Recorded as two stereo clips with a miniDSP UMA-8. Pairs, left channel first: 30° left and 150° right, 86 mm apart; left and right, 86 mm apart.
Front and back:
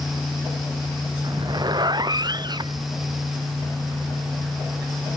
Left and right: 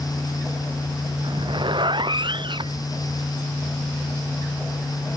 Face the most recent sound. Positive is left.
turn(degrees=-115)